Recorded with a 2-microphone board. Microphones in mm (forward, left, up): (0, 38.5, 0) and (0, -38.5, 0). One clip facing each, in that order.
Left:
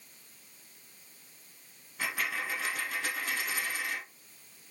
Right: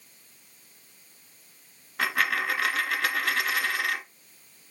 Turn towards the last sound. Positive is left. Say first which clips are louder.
# right 8 dB
turn(degrees=-80)